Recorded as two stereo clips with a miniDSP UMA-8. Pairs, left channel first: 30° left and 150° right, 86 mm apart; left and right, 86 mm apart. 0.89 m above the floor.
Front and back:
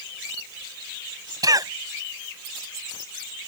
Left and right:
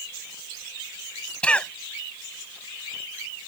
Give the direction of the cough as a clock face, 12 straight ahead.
6 o'clock.